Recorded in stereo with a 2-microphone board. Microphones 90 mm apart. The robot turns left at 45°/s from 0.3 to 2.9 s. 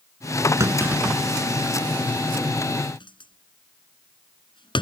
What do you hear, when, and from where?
0.6 s a clunk: 35° right (ahead or behind); by 4.8 s 65° left (ahead or behind)